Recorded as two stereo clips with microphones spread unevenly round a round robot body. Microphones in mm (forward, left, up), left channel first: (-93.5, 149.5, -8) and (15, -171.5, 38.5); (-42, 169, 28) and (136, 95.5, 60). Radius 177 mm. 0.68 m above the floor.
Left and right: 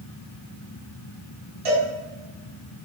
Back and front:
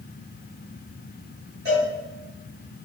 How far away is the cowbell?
About 2.0 m.